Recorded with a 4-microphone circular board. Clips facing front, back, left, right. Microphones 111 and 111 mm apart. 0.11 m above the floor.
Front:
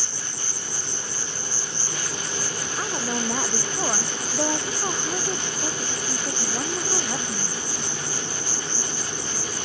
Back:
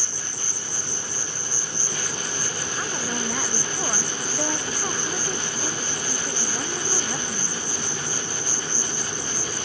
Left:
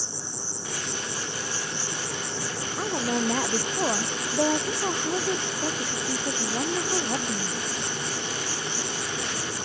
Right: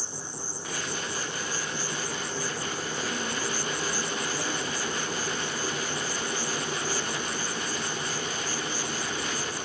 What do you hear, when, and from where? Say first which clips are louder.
0.0 s an insect: even, left 1 dB; 105° left
2.8 s a woman speaking: front 2 dB, left 11 dB; 70° left